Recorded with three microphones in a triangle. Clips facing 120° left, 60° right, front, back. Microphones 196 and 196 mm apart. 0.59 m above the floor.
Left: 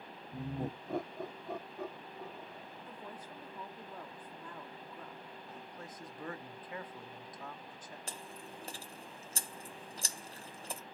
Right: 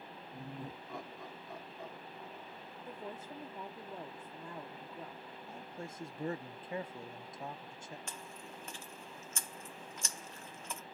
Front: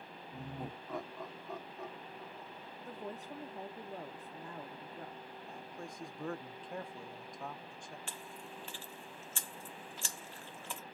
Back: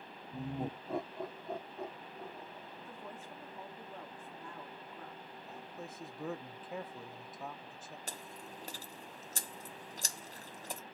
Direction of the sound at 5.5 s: 100° right.